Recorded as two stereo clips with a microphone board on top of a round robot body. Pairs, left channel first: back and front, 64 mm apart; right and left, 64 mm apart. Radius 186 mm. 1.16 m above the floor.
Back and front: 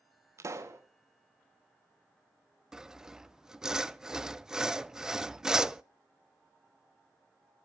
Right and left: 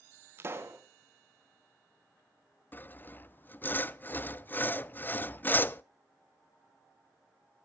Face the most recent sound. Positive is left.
turn(degrees=-70)